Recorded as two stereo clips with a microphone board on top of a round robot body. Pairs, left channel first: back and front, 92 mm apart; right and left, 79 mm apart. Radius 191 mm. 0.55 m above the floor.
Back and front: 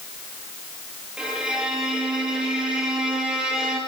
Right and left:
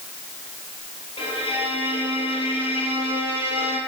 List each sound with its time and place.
1.2 s a violin: 80° right, 5 m